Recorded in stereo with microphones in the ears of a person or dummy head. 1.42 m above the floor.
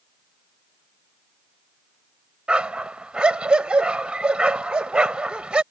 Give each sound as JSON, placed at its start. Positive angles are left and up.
{"t": 2.5, "sound": "a dog barking", "side_deg": -5}